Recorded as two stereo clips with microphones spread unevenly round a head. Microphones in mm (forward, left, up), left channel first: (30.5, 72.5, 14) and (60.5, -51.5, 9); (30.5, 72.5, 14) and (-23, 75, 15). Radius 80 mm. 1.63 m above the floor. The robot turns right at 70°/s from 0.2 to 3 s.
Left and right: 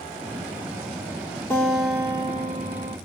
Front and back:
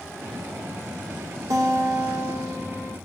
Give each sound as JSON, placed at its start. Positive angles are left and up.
{"t": 1.5, "sound": "a guitar", "azimuth_deg": 180, "distance_m": 0.8}